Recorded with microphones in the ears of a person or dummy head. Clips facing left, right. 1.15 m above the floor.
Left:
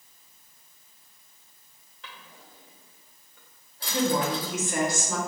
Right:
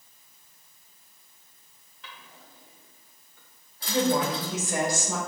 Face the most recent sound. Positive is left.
turn(degrees=-30)  # may be behind; listen again after turning